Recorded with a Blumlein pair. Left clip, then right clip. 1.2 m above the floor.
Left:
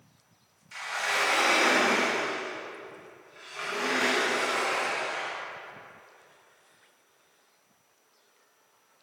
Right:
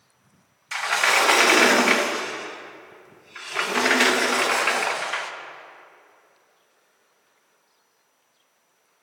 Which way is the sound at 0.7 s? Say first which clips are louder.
Right 9 dB; 40° right.